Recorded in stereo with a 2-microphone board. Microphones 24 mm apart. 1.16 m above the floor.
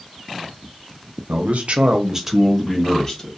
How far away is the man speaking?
About 0.9 m.